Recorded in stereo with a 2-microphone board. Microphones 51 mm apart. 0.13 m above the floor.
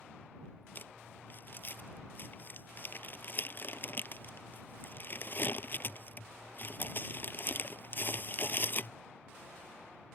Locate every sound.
0.8 s crumpling: 45° left (ahead or behind)